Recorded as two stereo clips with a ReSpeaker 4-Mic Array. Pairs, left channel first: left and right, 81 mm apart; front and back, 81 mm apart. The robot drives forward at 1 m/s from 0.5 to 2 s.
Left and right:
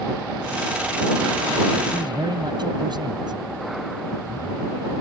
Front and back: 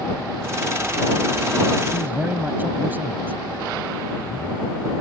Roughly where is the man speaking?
Behind right.